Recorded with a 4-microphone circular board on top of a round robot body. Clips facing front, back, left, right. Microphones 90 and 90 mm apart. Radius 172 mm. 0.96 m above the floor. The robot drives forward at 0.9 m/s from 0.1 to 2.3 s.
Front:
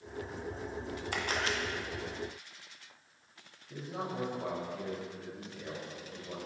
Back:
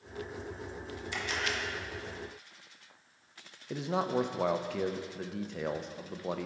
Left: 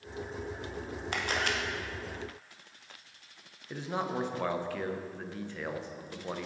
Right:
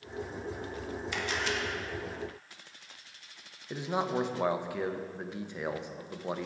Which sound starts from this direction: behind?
A man speaking, at 3.7 s.